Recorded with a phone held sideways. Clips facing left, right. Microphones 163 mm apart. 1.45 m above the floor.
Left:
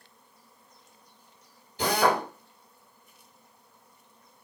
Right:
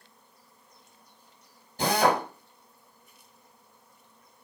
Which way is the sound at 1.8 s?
45° right (ahead or behind).